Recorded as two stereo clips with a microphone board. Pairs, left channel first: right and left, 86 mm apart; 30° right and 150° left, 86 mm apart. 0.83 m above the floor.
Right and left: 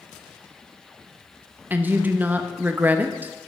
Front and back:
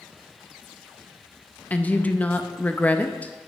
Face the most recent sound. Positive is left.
turn(degrees=30)